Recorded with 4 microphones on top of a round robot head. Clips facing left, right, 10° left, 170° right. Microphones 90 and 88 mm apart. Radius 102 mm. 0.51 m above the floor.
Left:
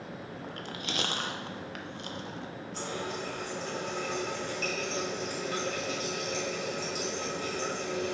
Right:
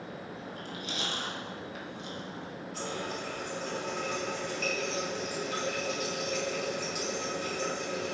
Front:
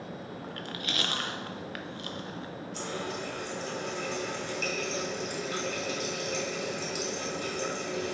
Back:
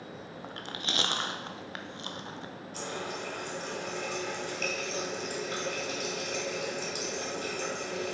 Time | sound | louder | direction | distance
0.4 | chewing | left 3 dB, even | 120° left | 0.6 m
2.7 | a running tap | left 1 dB, front 1 dB | 145° left | 3 m